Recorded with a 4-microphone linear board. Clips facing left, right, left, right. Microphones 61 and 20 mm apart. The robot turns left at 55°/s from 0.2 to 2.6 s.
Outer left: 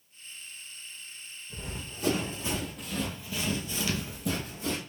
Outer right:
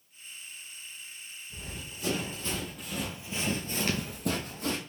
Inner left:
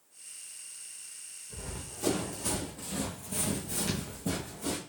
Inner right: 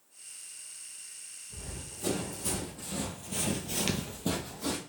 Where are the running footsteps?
70° left (ahead or behind), 2.5 m; by 4.8 s 50° right (ahead or behind), 1.5 m.